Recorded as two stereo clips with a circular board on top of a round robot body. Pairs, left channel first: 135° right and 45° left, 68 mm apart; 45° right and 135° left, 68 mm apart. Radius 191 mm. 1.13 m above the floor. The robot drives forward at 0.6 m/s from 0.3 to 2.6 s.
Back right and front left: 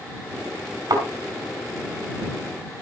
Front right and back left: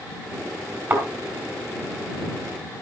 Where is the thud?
80° left, 4.5 m.